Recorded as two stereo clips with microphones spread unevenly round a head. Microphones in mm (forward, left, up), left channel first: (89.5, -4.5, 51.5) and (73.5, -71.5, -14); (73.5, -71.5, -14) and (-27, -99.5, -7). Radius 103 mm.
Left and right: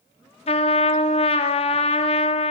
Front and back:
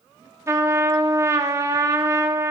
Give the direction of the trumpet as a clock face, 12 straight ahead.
8 o'clock.